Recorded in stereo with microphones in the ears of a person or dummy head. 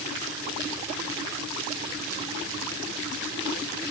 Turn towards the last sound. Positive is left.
No sound to turn to.